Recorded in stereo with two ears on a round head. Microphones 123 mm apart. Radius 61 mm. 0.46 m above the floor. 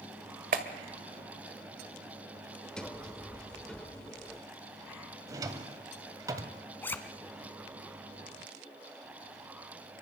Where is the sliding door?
5° left (ahead or behind), 1.2 m.